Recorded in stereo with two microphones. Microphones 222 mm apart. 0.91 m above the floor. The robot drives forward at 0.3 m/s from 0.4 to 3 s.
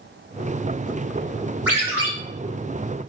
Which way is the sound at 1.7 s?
10° right (ahead or behind).